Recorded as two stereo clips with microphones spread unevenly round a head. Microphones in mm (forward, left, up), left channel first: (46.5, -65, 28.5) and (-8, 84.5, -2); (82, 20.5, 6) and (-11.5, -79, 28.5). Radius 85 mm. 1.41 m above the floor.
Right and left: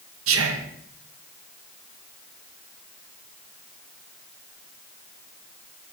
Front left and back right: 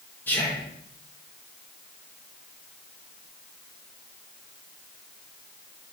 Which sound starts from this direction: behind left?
Whispering, at 0.3 s.